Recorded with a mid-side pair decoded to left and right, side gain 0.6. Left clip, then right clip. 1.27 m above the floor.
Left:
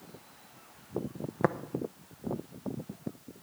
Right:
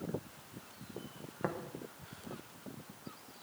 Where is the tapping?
50° left, 0.7 m.